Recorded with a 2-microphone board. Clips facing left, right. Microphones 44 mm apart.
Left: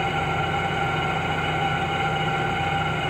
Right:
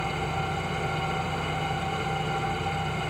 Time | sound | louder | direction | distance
0.0 | an engine running | left 6 dB | 35° left (ahead or behind) | 2.0 m